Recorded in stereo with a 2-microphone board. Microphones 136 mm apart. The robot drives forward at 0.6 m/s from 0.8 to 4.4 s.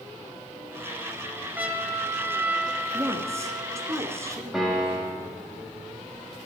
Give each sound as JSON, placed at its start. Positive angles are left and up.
{"t": 1.6, "sound": "a trumpet", "side_deg": -15, "distance_m": 1.4}
{"t": 2.9, "sound": "a woman speaking", "side_deg": -20, "distance_m": 1.7}
{"t": 4.5, "sound": "a piano", "side_deg": 0, "distance_m": 5.5}